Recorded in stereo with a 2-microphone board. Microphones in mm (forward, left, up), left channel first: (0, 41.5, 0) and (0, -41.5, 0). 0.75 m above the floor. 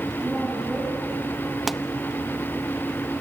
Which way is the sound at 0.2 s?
Centre (ahead or behind).